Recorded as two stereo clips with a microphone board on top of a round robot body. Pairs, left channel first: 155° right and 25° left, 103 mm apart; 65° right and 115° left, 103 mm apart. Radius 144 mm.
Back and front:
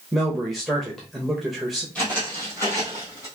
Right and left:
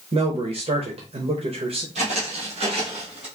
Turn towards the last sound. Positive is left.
turn(degrees=145)